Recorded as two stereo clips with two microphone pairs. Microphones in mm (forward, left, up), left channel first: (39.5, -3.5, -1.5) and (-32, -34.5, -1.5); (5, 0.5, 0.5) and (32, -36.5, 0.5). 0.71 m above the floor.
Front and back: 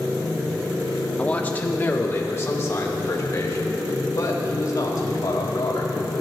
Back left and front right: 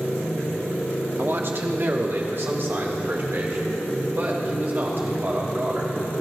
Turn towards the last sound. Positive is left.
turn(degrees=-15)